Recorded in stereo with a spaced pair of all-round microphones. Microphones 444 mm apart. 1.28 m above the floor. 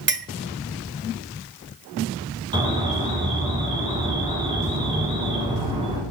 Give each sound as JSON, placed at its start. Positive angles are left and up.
{"t": 0.1, "sound": "a clink", "side_deg": -25, "distance_m": 0.6}
{"t": 2.5, "sound": "an alarm", "side_deg": -10, "distance_m": 5.0}